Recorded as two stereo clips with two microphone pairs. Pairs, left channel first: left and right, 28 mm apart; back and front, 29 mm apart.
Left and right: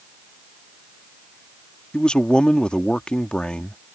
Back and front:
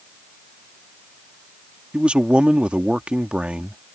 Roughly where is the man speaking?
Ahead left.